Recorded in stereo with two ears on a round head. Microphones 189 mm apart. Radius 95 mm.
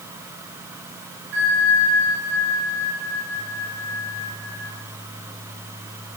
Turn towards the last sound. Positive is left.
turn(degrees=-55)  # may be behind; listen again after turning